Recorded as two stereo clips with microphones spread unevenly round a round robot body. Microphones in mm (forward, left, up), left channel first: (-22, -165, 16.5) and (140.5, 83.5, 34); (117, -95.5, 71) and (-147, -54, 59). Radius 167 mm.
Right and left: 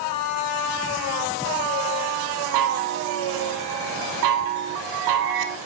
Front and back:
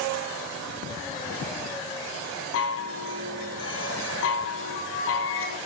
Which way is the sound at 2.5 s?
45° left.